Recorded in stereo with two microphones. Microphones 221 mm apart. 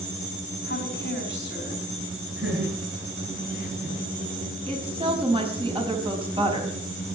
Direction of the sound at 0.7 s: 55° left (ahead or behind).